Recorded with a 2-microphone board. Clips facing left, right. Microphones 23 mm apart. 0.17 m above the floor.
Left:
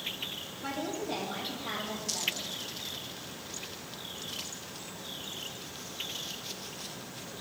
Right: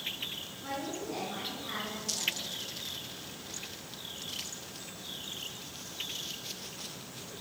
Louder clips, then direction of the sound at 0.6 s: Left 3 dB; 50° left (ahead or behind).